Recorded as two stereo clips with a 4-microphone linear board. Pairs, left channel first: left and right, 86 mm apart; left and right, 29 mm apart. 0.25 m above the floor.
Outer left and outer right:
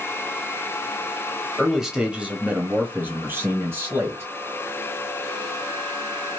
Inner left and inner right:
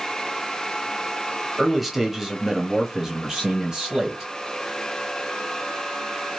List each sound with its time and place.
1.6 s a man speaking: 5° right (ahead or behind), 1.0 m; by 4.3 s 30° right (ahead or behind), 1.5 m